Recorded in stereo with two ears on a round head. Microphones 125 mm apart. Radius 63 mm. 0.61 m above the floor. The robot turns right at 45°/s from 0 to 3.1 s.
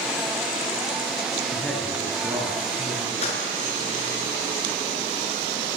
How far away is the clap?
About 6.5 m.